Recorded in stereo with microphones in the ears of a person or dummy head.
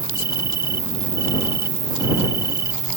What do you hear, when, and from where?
0.0 s an insect: 15° right (ahead or behind)